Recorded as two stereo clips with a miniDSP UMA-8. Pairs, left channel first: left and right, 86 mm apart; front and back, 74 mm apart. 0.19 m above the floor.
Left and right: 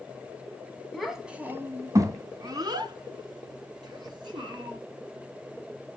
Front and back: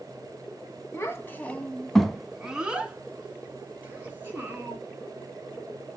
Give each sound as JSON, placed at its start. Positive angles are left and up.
{"t": 0.9, "sound": "a child speaking", "azimuth_deg": 5, "distance_m": 0.7}